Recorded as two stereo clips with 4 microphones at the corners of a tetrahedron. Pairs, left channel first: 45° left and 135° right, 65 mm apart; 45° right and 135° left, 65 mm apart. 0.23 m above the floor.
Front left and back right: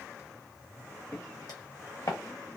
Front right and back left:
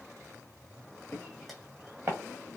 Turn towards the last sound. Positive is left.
turn(degrees=85)